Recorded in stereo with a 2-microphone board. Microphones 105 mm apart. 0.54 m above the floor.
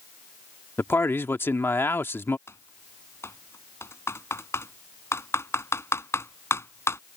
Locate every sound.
0.8 s a man speaking: 20° left (ahead or behind)
2.5 s typing on a keyboard: 25° left (ahead or behind)